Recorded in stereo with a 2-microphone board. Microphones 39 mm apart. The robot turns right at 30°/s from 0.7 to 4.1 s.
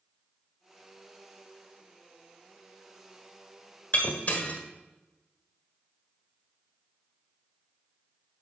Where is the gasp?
I don't hear a gasp.